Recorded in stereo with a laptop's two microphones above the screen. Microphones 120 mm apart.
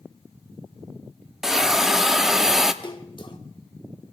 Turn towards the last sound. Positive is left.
turn(degrees=40)  # may be behind; listen again after turning